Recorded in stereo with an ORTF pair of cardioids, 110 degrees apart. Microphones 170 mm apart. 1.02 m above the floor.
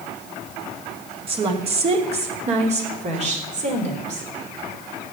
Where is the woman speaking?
35° right, 2.5 m; by 4.3 s 45° right, 4.5 m.